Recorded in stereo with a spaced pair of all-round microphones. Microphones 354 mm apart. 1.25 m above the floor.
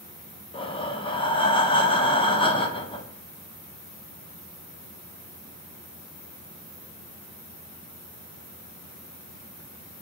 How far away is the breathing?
About 0.5 m.